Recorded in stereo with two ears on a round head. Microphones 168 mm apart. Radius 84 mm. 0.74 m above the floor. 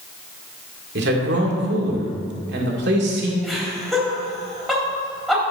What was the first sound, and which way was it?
A man speaking, 65° right (ahead or behind).